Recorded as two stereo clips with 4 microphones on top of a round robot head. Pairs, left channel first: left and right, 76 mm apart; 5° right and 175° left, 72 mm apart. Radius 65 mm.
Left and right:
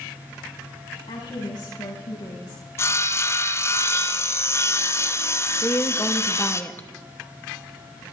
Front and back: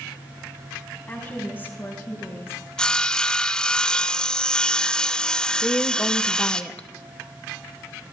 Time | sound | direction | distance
1.1 | a woman speaking | 60° left | 5 m
2.8 | sawing | 70° left | 0.8 m
5.6 | a woman speaking | 50° left | 1.1 m